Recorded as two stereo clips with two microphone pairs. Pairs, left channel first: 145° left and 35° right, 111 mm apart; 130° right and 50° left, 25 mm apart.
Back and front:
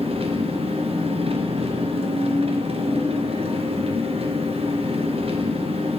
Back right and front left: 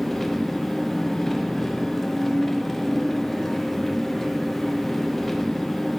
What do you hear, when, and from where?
0.0 s an engine running: 45° right, 0.8 m